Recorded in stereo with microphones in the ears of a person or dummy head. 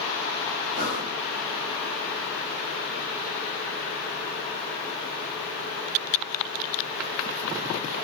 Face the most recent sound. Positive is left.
turn(degrees=-35)  # may be behind; listen again after turning